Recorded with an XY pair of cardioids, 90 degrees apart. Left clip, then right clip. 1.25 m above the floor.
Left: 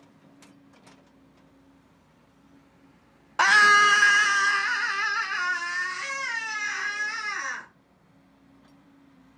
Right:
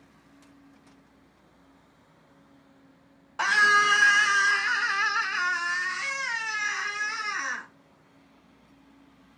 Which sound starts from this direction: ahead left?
A scream, at 3.4 s.